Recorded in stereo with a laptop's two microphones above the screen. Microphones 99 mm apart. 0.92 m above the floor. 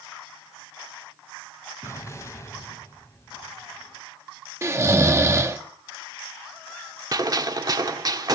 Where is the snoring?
25° right (ahead or behind), 1.0 m.